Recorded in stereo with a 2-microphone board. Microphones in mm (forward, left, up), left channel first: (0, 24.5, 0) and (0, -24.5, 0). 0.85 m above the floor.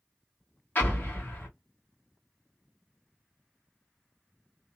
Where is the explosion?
40° left (ahead or behind), 1.4 m.